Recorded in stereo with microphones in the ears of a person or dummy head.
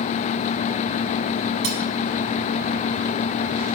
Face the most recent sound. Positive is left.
turn(degrees=-70)  # may be behind; listen again after turning